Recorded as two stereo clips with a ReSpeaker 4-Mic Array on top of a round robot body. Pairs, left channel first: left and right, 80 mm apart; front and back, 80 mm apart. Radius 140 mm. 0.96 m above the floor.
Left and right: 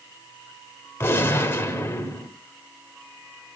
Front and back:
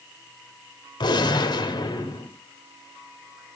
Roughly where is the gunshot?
Ahead left.